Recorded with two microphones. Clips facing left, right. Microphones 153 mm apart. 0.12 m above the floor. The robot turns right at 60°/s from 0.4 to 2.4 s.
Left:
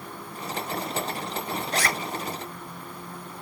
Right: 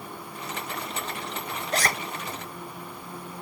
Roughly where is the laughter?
No laughter in this recording.